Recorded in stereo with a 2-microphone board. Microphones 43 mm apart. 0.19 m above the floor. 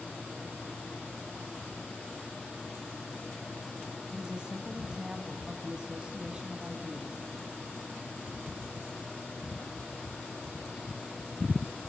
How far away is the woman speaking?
About 1.5 m.